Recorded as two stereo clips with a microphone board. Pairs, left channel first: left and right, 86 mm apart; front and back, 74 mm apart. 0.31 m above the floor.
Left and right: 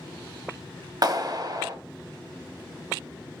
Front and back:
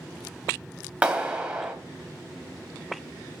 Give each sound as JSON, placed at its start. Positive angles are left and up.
{"t": 1.0, "sound": "a clap", "azimuth_deg": -105, "distance_m": 1.5}